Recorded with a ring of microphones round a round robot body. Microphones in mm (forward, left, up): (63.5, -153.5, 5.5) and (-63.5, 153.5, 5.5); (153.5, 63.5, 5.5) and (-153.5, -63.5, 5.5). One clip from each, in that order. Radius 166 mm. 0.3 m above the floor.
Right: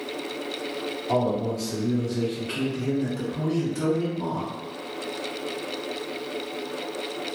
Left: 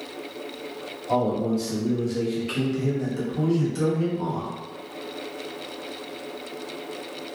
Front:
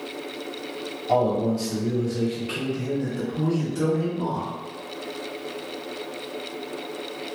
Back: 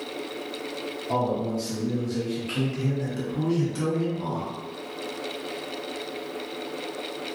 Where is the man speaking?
55° left, 1.0 m; by 4.5 s 170° left, 1.8 m.